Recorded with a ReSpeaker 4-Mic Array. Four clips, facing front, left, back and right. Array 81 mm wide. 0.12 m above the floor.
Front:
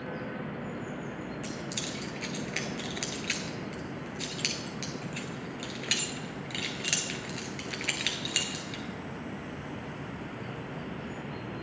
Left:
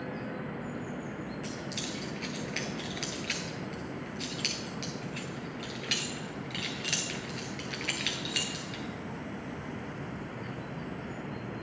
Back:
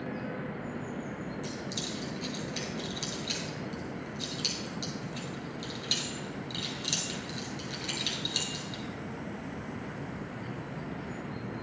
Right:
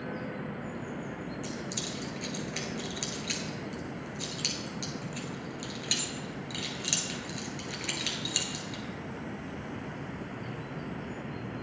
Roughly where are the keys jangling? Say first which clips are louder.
Even, even; ahead.